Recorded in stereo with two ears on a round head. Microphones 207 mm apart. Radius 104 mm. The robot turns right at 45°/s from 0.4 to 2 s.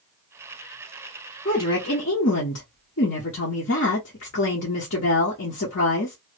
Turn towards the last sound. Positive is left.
turn(degrees=55)  # may be behind; listen again after turning